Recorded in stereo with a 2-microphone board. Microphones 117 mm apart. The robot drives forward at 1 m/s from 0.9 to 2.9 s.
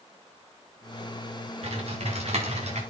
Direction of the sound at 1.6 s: 60° right (ahead or behind).